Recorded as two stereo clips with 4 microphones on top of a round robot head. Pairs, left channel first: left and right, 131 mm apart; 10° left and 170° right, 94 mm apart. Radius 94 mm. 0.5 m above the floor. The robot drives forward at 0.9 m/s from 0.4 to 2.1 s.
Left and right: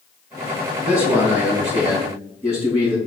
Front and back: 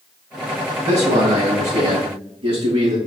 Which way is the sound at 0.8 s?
165° right.